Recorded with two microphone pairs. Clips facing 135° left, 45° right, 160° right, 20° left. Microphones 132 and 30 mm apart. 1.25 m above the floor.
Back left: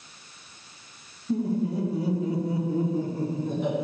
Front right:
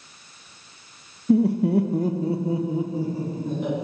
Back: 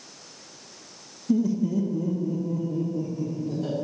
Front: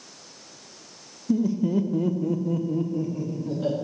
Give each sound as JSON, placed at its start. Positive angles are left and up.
{"t": 1.3, "sound": "laughter", "azimuth_deg": -60, "distance_m": 0.6}